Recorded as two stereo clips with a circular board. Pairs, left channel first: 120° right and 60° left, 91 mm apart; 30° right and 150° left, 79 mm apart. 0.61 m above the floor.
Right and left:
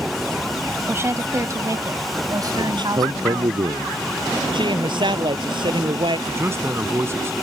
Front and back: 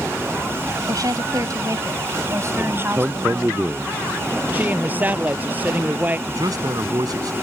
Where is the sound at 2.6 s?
90° left.